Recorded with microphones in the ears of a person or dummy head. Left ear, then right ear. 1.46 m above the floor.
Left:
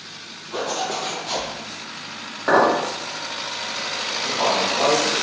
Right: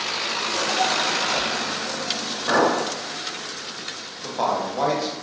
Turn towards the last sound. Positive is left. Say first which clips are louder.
# left 2 dB
turn(degrees=-50)  # may be behind; listen again after turning